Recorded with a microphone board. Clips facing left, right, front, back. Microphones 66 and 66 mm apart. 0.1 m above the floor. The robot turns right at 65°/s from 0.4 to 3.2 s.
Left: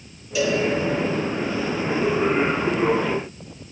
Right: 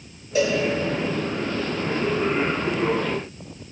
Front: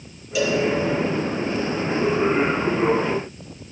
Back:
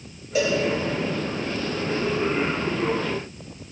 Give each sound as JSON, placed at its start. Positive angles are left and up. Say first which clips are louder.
{"t": 0.3, "sound": "a cowbell", "louder": "right 1 dB, front 1 dB", "azimuth_deg": -135, "distance_m": 2.5}